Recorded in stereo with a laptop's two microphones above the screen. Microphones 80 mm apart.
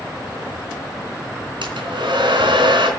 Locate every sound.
1.6 s a hair dryer: 80° right, 3.5 m